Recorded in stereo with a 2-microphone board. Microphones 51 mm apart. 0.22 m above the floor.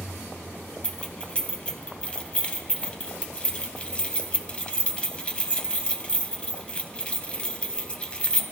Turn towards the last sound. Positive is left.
turn(degrees=25)  # may be behind; listen again after turning